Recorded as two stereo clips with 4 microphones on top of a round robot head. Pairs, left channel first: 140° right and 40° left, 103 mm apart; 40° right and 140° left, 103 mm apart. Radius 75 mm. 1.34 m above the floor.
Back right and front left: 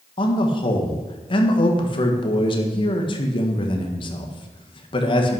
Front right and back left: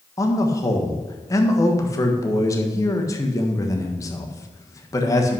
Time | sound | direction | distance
0.2 | a man speaking | 100° right | 1.5 m